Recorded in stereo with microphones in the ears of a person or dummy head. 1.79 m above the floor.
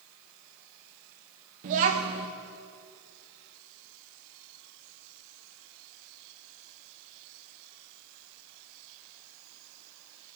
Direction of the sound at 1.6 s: 35° right (ahead or behind).